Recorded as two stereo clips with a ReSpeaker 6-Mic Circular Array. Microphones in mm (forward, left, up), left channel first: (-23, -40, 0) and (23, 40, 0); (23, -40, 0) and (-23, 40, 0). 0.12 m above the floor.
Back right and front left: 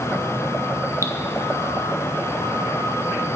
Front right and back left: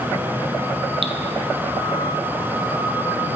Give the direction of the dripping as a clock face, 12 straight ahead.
8 o'clock.